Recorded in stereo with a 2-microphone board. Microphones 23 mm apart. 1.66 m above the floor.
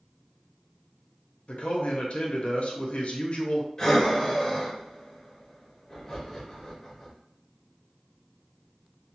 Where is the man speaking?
55° left (ahead or behind), 0.6 m.